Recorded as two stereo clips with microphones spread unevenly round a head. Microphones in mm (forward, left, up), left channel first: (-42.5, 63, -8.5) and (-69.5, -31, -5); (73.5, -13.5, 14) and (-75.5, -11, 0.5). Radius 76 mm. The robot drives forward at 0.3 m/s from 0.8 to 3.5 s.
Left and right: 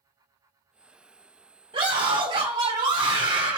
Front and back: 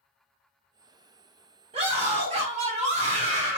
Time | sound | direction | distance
1.7 | a scream | 135° right | 3.5 m